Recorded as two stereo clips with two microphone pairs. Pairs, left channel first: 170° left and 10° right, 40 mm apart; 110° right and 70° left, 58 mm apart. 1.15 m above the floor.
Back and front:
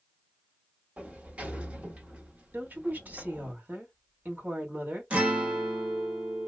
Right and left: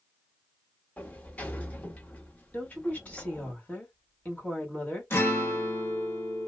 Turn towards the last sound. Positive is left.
turn(degrees=-60)